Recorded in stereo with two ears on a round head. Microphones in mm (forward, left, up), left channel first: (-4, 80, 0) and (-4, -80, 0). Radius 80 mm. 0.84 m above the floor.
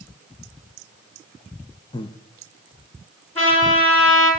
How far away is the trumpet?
About 7 m.